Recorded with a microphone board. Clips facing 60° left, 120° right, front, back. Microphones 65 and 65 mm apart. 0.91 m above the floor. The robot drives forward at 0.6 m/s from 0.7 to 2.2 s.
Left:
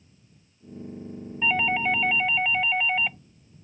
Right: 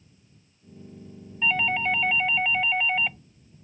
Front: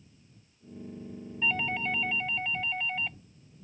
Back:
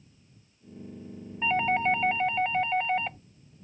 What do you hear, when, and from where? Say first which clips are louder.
1.4 s a doorbell: left 1 dB, back 6 dB; 135° left; by 3.2 s 150° left